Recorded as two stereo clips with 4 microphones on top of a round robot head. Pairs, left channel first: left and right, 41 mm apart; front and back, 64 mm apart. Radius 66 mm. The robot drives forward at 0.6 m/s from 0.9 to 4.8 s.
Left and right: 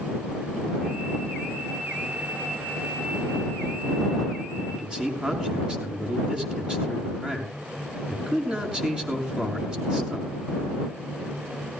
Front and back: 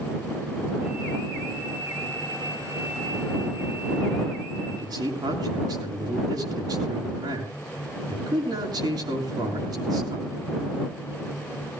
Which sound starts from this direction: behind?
A man speaking, at 4.7 s.